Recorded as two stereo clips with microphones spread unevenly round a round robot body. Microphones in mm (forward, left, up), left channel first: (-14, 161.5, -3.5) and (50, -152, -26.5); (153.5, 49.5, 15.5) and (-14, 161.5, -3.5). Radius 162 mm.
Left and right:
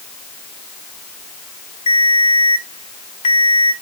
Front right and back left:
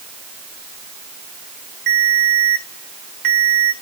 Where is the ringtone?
175° left, 3 m.